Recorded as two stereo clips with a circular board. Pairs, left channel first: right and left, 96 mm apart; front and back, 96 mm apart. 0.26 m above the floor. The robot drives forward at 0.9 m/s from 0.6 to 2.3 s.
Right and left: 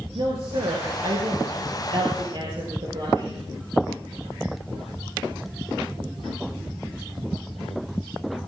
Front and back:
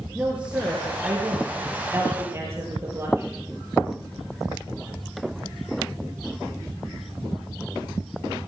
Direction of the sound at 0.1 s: 105° left.